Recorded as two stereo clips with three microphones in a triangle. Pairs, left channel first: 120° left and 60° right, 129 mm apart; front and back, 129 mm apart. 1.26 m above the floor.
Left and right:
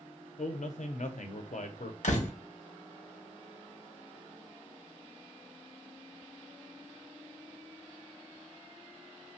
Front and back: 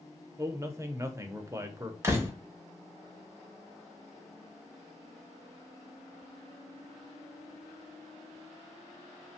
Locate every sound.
0.4 s a man speaking: 110° left, 0.5 m
2.0 s a door slam: 110° left, 0.6 m